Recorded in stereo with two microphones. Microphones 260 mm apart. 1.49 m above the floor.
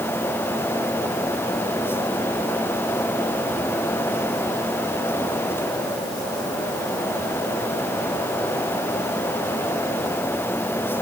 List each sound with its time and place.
Only background noise.